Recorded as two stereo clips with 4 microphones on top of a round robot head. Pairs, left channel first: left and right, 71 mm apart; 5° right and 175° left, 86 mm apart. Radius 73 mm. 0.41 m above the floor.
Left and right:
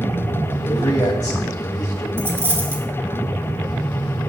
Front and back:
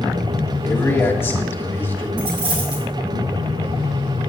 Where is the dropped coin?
150° right, 2.5 m.